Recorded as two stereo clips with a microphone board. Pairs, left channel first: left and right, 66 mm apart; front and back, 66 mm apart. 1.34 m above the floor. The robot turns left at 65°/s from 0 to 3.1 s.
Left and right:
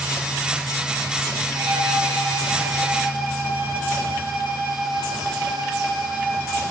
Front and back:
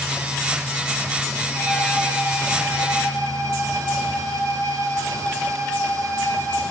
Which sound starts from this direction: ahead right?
A violin, at 1.6 s.